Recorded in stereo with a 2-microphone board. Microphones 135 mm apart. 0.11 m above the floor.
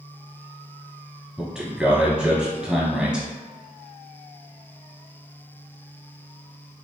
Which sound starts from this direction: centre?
A man speaking, at 1.4 s.